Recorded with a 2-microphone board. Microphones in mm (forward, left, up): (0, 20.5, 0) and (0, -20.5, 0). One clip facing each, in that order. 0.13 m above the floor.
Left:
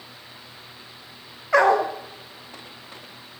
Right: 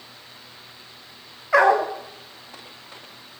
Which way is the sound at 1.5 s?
5° right (ahead or behind).